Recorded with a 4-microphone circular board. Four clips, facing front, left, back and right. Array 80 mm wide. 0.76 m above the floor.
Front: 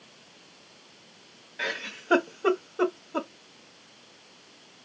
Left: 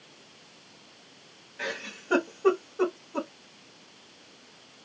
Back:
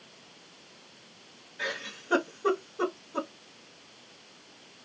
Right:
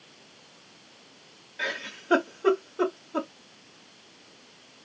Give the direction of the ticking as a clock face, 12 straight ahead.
No ticking in this recording.